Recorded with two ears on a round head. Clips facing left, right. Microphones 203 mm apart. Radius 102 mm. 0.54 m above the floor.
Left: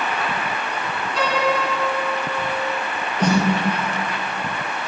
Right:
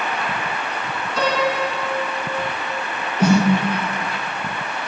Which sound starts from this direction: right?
A piano, at 1.2 s.